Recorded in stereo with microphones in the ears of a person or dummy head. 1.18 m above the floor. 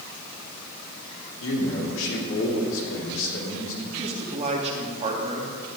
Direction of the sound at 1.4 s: 80° left.